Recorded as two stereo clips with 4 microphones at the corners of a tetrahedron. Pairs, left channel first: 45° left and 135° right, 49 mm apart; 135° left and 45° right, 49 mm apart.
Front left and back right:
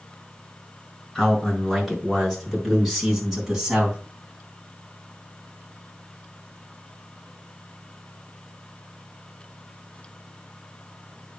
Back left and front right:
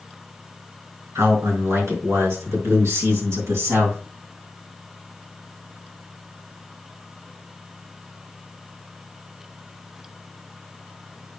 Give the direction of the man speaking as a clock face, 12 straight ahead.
1 o'clock.